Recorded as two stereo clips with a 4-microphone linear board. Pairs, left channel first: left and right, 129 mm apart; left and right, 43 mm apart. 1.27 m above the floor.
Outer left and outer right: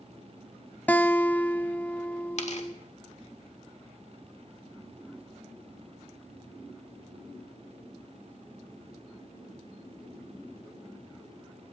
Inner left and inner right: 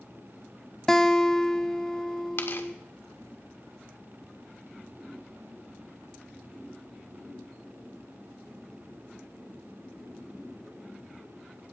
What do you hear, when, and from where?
0.9 s a guitar: 10° left (ahead or behind), 0.6 m
2.4 s tearing paper: 60° left (ahead or behind), 1.8 m